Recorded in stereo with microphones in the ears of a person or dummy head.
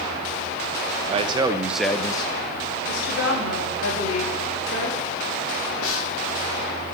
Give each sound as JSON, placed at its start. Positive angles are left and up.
{"t": 1.1, "sound": "a man speaking", "side_deg": -35, "distance_m": 0.9}
{"t": 2.9, "sound": "a woman speaking", "side_deg": 70, "distance_m": 5.5}
{"t": 5.8, "sound": "a snare drum", "side_deg": 75, "distance_m": 1.9}